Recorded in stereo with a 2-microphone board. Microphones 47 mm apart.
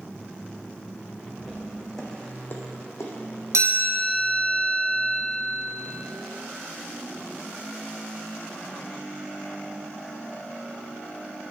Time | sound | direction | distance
1.4 | footsteps | 10° right (ahead or behind) | 1.9 m
3.5 | a chime | 85° right | 2 m